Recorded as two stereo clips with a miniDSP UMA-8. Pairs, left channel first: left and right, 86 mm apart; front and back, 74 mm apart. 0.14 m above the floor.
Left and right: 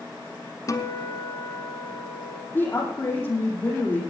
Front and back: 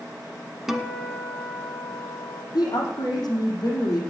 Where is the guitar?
95° left, 1.2 m.